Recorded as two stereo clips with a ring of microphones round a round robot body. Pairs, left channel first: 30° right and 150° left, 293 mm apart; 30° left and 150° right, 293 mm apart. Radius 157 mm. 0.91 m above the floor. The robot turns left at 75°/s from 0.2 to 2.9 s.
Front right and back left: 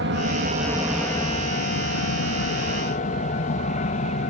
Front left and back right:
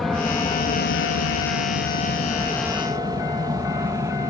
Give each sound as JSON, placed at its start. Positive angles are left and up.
{"t": 0.0, "sound": "an aircraft", "azimuth_deg": 120}